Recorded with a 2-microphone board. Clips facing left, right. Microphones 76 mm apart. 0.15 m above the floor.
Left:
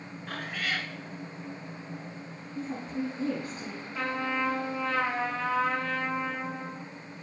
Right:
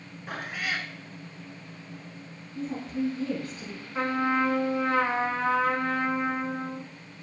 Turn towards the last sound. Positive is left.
turn(degrees=-30)  # may be behind; listen again after turning